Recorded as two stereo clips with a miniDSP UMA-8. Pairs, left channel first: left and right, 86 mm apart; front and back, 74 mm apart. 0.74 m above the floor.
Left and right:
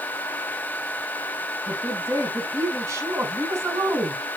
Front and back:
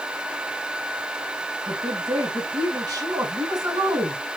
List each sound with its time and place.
1.7 s a woman speaking: 150° right, 6 m